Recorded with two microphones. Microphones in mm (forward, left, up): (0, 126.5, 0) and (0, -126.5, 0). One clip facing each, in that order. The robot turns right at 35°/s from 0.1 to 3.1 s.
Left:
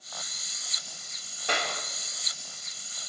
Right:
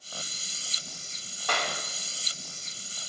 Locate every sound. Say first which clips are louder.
1.5 s a clap: even; 20° left (ahead or behind), 1.9 m; by 1.8 s 10° left (ahead or behind), 1.9 m